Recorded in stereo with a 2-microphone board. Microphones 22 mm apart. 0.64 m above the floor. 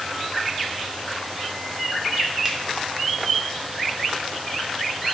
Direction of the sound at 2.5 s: 25° right (ahead or behind).